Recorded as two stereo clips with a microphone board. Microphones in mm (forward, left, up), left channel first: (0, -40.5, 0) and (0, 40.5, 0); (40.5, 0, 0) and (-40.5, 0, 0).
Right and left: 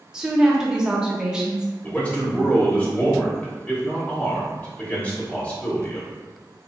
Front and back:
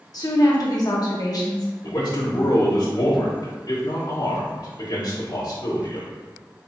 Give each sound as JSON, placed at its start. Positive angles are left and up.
{"t": 0.1, "sound": "a woman speaking", "azimuth_deg": 10, "distance_m": 0.9}
{"t": 1.8, "sound": "a man speaking", "azimuth_deg": -20, "distance_m": 0.9}